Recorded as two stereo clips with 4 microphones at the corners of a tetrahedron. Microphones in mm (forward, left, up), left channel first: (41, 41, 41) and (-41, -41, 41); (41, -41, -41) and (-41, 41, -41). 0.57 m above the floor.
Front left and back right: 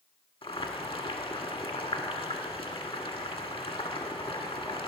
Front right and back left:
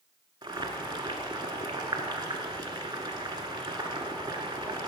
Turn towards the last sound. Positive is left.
turn(degrees=80)